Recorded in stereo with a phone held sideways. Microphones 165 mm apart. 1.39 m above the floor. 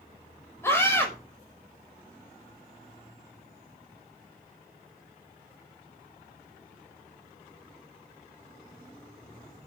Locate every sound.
0.6 s a scream: 15° left (ahead or behind), 6 m